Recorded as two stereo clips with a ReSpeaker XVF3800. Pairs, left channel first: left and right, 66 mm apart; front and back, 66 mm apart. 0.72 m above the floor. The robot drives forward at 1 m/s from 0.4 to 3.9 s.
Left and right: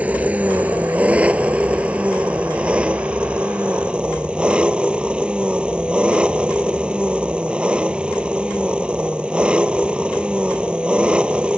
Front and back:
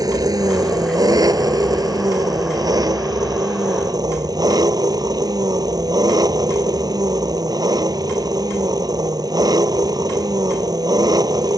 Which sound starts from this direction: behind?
An engine running, at 0.0 s.